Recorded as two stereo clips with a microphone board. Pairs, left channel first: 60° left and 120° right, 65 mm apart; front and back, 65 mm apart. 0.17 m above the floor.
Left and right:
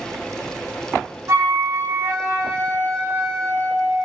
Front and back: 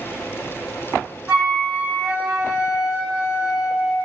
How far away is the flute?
About 1.1 m.